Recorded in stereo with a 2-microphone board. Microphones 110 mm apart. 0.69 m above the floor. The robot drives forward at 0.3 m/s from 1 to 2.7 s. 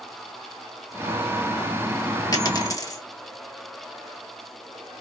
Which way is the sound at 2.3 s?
35° left (ahead or behind).